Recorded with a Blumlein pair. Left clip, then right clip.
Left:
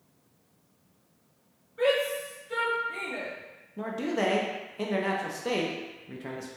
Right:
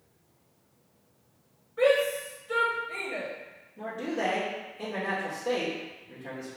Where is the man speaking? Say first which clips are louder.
Left 2 dB; 55° left, 0.5 m.